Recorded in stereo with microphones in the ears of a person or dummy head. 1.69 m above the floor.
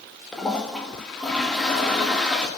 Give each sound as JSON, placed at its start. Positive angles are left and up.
{"t": 0.3, "sound": "a toilet flushing", "side_deg": 0, "distance_m": 1.4}